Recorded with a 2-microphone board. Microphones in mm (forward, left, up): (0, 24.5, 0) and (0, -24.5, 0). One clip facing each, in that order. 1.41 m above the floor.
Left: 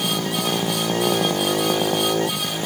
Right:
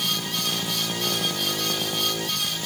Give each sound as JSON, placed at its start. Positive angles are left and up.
{"t": 0.0, "sound": "a motorcycle", "side_deg": 40}